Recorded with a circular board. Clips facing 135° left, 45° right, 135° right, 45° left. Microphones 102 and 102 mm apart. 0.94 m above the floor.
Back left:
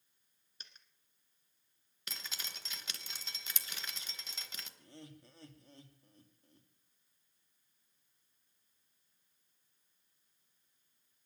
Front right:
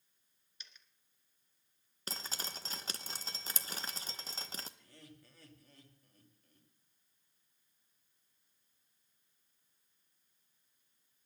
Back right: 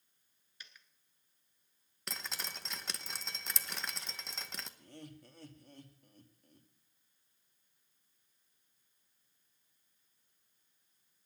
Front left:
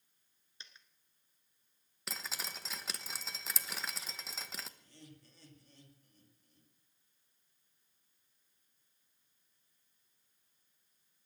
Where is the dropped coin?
105° left, 1.4 m.